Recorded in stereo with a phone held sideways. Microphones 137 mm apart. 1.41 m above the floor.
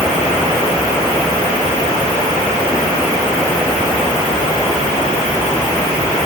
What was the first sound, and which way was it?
Only background noise.